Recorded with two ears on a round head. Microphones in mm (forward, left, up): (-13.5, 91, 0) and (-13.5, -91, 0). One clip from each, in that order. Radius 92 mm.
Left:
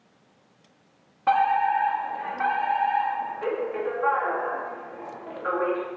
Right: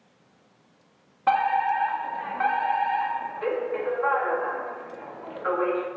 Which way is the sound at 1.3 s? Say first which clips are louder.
Left 1 dB; 10° right (ahead or behind).